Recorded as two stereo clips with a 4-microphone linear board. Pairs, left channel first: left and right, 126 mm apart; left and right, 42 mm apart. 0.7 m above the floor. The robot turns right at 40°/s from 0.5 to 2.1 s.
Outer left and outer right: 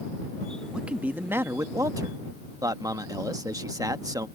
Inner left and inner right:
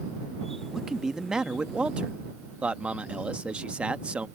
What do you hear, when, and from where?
0.7 s a man speaking: 170° right; by 4.3 s 115° right